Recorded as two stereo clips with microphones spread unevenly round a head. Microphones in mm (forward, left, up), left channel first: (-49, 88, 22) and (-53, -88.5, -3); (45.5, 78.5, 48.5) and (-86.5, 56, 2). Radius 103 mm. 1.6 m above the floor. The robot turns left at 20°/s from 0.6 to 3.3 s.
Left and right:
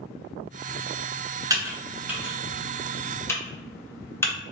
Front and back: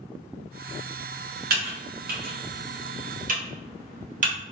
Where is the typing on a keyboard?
165° right, 1.3 m; by 4.3 s 160° left, 1.3 m.